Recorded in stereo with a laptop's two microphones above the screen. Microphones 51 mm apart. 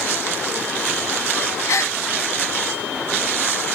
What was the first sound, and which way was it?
A gasp, 70° left (ahead or behind).